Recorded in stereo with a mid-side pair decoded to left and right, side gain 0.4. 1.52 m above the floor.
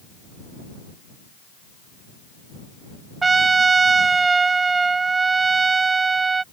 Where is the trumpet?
35° right.